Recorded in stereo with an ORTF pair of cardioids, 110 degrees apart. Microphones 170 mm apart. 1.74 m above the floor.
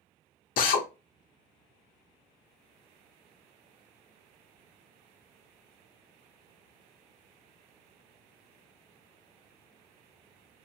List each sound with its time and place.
0.6 s a drill: 55° left, 0.7 m